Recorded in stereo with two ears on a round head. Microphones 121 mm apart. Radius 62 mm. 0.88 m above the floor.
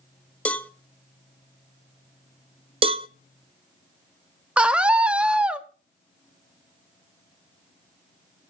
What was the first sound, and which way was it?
A cowbell, 10° left (ahead or behind).